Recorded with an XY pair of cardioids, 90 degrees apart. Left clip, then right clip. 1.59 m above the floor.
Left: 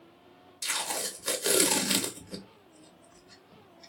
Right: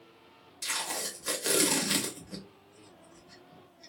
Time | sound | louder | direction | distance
0.6 | tape being pulled | left 2 dB | 25° left | 1.2 m